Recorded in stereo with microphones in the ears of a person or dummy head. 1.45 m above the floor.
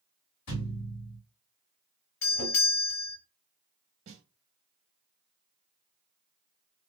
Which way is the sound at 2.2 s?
65° left (ahead or behind).